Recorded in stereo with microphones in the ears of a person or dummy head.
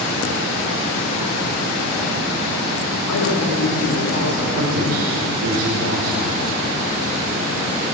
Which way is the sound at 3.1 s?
85° left.